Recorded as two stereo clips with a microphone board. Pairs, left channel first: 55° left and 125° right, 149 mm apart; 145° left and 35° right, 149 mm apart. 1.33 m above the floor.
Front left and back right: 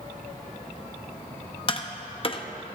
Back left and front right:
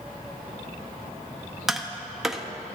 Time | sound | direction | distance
1.7 | tapping | 50° left | 0.7 m